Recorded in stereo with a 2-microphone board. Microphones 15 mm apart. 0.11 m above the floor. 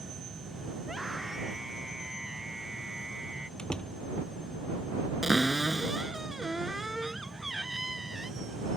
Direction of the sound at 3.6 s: 65° left (ahead or behind).